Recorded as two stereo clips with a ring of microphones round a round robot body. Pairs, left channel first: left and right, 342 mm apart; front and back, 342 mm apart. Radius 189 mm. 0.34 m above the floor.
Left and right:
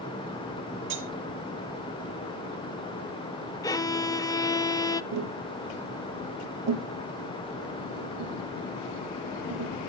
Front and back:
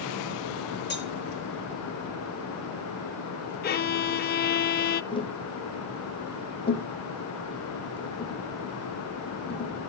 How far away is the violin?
About 0.6 m.